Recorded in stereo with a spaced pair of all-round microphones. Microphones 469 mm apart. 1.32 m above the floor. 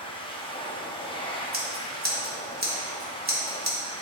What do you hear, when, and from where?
0.0 s a machine running: 10° left (ahead or behind), 0.7 m
1.5 s scissors: 20° right (ahead or behind), 1.4 m